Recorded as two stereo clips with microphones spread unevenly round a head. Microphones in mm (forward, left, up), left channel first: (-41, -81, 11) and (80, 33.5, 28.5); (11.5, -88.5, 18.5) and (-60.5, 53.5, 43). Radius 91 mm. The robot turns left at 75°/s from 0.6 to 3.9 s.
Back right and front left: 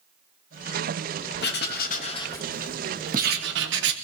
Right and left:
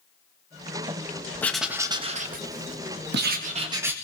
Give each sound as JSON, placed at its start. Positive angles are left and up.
{"t": 1.4, "sound": "writing", "azimuth_deg": -140, "distance_m": 1.5}